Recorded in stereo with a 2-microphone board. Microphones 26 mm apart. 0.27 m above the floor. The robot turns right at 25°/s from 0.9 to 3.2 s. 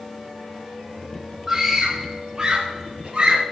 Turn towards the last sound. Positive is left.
turn(degrees=-55)  # may be behind; listen again after turning